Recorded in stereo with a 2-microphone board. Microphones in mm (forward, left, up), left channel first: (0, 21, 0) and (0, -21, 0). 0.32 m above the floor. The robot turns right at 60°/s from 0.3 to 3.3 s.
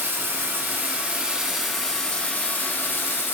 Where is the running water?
80° right, 0.8 m; by 3.4 s 100° left, 0.8 m.